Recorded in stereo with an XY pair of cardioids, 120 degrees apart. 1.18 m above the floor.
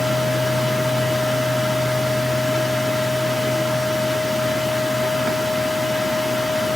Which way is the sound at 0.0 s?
5° left.